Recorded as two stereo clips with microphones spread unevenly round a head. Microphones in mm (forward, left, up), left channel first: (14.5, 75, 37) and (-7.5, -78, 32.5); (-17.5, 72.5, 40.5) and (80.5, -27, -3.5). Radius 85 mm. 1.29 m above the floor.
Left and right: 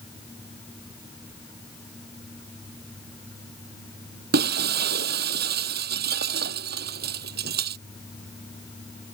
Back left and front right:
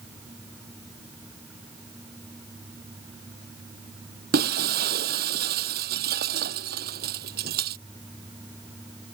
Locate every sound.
4.3 s breaking glass: 75° right